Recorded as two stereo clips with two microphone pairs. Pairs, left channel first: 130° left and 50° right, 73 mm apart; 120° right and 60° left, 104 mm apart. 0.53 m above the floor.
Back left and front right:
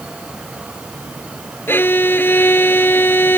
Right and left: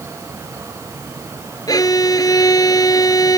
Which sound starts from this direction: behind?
A violin, at 1.7 s.